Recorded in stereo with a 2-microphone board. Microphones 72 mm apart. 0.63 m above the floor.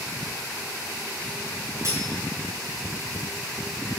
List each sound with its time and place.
1.8 s cutlery clinking: 45° right (ahead or behind), 4.5 m